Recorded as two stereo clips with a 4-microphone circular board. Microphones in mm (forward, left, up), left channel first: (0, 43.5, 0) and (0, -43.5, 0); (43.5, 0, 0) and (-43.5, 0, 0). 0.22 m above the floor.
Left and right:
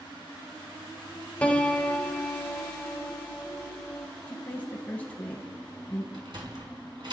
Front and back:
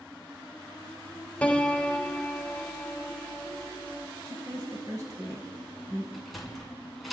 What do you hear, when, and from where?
1.4 s a piano: 45° left, 0.9 m
4.3 s a woman speaking: 150° left, 1.2 m
6.1 s a sliding door: 90° right, 2.5 m